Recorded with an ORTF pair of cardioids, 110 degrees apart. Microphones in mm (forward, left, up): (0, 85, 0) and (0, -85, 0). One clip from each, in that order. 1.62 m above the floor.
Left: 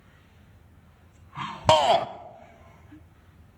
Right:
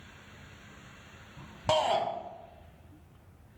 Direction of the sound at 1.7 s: 50° left.